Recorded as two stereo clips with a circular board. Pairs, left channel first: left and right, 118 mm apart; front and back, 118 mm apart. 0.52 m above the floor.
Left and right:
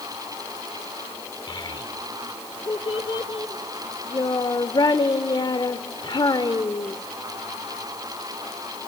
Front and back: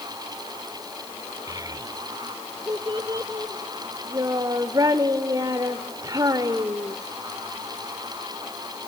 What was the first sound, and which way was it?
A child speaking, 130° left.